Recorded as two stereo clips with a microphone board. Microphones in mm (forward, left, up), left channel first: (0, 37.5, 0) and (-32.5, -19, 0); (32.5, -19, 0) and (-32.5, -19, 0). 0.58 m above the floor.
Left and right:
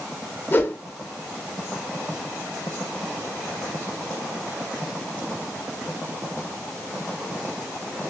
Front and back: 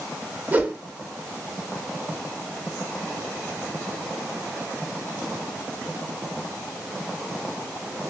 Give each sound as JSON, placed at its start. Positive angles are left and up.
{"t": 0.5, "sound": "a whoosh", "azimuth_deg": 115, "distance_m": 0.5}